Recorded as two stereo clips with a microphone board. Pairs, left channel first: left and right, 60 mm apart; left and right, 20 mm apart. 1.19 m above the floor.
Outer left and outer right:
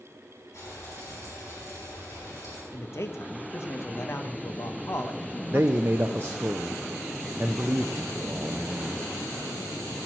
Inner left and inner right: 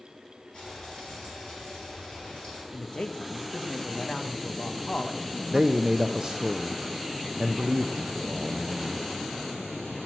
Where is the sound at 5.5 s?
35° right (ahead or behind), 0.5 m.